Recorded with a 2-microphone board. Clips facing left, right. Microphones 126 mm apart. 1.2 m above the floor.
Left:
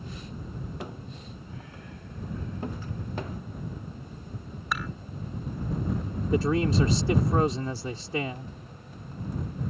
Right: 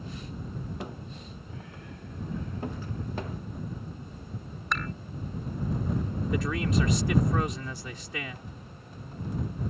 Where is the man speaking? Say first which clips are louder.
Left 5 dB; 35° left (ahead or behind).